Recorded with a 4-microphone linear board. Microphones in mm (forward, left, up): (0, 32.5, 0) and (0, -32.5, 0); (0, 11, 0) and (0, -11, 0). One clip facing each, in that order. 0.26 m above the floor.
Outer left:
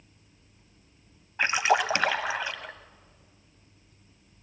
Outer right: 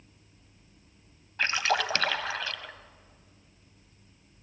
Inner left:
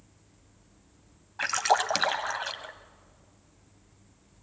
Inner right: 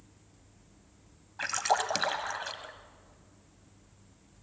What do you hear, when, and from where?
1.4 s a splash: 20° left (ahead or behind), 1.1 m